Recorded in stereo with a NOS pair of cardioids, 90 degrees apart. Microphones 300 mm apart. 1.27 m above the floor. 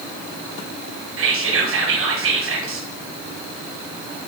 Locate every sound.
1.2 s whispering: 45° right, 0.9 m